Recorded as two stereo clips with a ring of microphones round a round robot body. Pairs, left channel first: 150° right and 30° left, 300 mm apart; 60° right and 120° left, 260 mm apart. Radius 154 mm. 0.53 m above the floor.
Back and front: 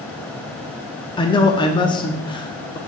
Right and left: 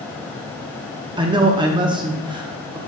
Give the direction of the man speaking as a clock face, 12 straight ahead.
7 o'clock.